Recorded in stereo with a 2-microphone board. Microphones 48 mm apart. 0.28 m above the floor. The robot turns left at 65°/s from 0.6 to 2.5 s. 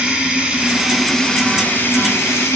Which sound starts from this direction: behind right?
Running water, at 0.0 s.